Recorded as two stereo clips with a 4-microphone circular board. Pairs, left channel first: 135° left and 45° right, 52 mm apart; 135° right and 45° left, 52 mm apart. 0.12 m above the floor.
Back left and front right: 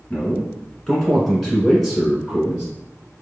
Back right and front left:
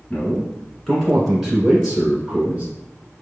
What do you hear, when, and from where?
0.1 s a man speaking: 175° right, 1.6 m; by 2.6 s 15° left, 1.6 m